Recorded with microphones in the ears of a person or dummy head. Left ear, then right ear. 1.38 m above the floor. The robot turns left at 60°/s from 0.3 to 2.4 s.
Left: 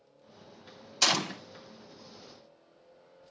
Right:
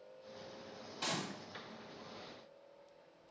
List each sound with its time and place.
1.0 s a gunshot: 65° left (ahead or behind), 0.6 m; by 1.4 s 45° left (ahead or behind), 0.6 m